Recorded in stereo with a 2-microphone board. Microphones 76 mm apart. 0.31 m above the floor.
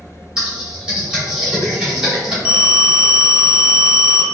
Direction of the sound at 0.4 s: 10° right (ahead or behind).